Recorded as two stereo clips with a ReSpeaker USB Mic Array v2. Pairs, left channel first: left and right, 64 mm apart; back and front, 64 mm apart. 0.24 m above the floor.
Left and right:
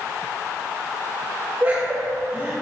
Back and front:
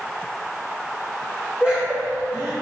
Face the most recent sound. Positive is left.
turn(degrees=-55)